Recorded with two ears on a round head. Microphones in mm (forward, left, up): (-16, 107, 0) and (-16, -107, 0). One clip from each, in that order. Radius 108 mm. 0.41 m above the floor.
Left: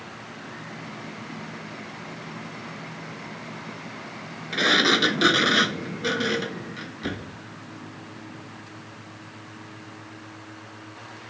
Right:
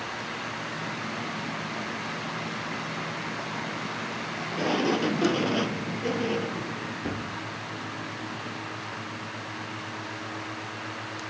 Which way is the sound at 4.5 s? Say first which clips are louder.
Left 8 dB; 75° left (ahead or behind).